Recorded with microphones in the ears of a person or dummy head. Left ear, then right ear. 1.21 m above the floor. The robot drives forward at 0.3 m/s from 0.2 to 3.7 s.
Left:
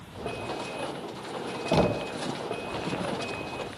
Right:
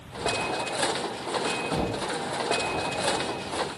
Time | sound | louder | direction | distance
1.7 | knocking | left 3 dB | 55° left (ahead or behind) | 0.6 m